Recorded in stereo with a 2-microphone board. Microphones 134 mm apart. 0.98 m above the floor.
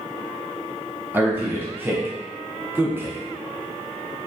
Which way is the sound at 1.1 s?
15° right (ahead or behind).